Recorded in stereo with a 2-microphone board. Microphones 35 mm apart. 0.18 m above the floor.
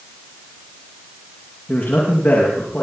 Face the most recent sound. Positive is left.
turn(degrees=55)  # may be behind; listen again after turning